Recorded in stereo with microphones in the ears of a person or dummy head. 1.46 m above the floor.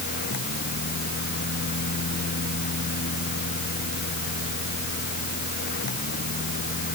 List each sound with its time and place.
0.0 s a fan: 60° left (ahead or behind)